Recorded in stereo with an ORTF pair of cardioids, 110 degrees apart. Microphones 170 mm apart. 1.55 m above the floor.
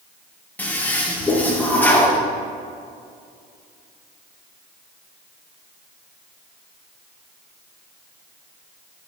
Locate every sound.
0.6 s a toilet flushing: 10° left, 1.7 m